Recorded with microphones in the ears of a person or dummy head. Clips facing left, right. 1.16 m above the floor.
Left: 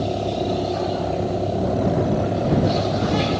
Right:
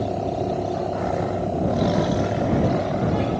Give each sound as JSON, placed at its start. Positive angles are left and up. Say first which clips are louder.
{"t": 0.0, "sound": "a vehicle", "louder": "left 1 dB", "side_deg": 10}